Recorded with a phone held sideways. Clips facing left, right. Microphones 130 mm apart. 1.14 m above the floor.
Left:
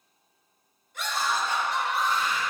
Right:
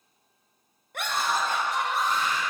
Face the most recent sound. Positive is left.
turn(degrees=-40)  # may be behind; listen again after turning